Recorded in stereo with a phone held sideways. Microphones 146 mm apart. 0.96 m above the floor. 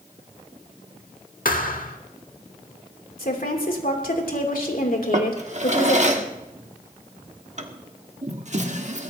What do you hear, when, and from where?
1.4 s a thud: 70° left (ahead or behind), 1.3 m
3.2 s a woman speaking: 75° left (ahead or behind), 3 m
5.1 s a drawer: 55° right (ahead or behind), 1.3 m